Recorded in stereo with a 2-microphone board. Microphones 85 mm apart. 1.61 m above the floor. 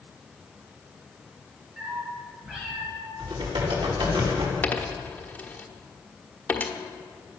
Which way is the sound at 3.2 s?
75° right (ahead or behind).